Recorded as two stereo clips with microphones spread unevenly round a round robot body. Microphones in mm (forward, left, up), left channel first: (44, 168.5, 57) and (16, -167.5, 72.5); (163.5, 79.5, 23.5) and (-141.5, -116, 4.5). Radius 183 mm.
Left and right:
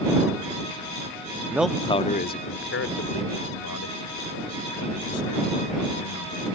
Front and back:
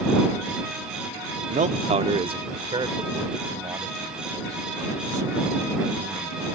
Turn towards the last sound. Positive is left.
turn(degrees=130)